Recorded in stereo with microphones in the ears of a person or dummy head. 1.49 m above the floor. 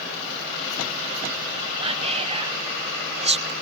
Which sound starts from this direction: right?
Whispering, at 1.8 s.